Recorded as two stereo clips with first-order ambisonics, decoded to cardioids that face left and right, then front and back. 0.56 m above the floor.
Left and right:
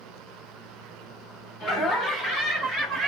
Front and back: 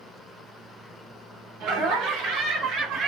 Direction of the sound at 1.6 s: 145° left.